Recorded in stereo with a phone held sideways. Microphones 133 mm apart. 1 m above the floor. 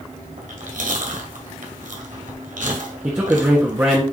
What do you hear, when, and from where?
0.4 s chewing: 75° right (ahead or behind), 1.8 m
3.0 s a man speaking: 15° right (ahead or behind), 1.6 m